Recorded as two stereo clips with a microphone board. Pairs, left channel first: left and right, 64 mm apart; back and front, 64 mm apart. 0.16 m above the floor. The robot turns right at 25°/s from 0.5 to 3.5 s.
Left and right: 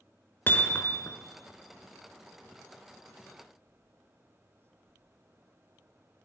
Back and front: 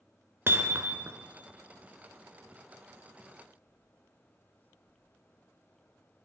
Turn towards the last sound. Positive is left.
turn(degrees=115)